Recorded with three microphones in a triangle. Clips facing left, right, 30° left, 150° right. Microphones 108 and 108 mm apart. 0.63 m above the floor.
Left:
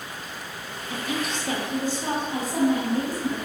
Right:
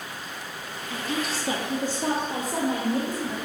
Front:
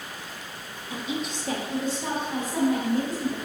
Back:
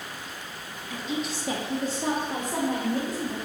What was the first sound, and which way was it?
A woman speaking, 65° left.